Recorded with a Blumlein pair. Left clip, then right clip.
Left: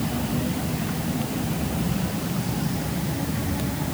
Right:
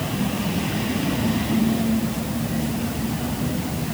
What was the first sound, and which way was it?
Only background noise.